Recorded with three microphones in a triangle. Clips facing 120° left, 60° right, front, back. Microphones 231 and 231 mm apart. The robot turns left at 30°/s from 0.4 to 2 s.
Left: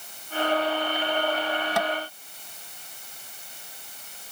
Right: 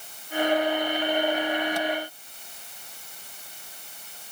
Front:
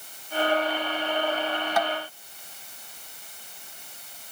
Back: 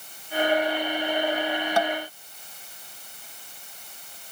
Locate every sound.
1.8 s tapping: 120° left; by 1.9 s 115° left